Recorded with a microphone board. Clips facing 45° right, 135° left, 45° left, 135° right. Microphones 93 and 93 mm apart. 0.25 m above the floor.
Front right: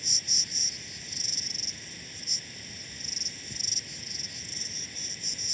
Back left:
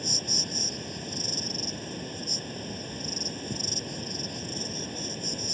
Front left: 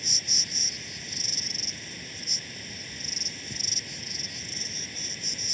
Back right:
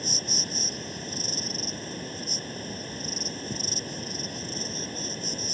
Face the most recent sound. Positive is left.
turn(degrees=175)